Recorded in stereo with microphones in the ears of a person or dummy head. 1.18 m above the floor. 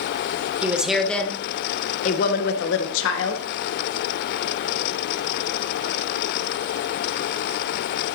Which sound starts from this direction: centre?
A woman speaking, at 0.6 s.